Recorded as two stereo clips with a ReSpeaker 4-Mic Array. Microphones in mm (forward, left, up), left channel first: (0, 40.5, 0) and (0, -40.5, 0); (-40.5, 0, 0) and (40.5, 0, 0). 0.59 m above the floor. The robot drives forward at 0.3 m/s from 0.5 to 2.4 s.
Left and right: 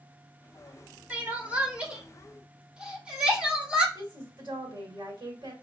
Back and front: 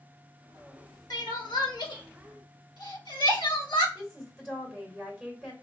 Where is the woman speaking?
90° right, 2.5 m.